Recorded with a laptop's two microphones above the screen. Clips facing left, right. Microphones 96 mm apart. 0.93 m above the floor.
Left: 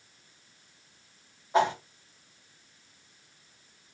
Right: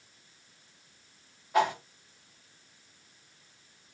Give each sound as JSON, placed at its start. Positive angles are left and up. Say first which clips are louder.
{"t": 1.5, "sound": "a whoosh", "louder": "left 1 dB", "side_deg": 25, "distance_m": 1.0}